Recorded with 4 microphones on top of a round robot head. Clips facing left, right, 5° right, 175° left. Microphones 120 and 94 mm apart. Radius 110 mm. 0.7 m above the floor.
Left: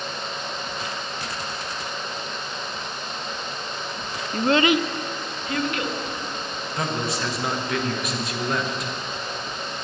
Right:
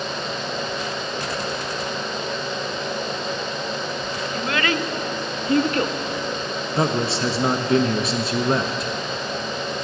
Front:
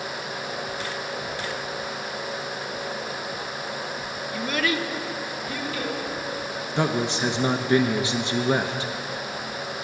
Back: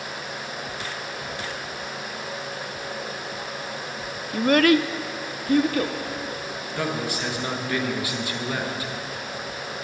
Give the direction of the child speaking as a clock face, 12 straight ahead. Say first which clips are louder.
Left 6 dB, back 9 dB; 8 o'clock.